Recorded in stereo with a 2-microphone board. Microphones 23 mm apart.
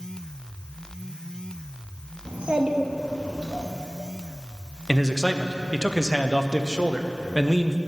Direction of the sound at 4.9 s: 20° right (ahead or behind).